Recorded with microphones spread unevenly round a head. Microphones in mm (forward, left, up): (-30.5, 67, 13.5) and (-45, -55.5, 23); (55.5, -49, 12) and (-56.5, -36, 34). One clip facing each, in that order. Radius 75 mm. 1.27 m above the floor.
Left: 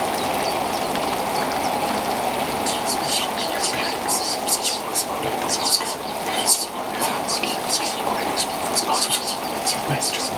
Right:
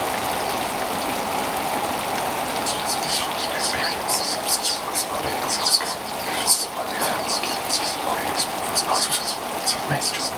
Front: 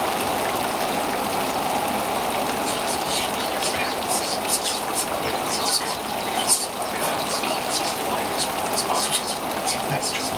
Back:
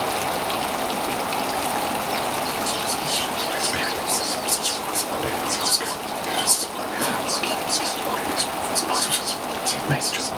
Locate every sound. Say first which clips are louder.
2.7 s whispering: left 2 dB, front 1 dB; 155° left, 1.9 m